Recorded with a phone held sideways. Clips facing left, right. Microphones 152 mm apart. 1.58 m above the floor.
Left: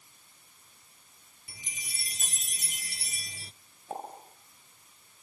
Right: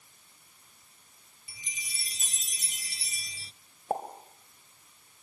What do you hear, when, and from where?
1.5 s a chime: 55° left (ahead or behind), 0.5 m
3.9 s a pop: 55° right (ahead or behind), 3 m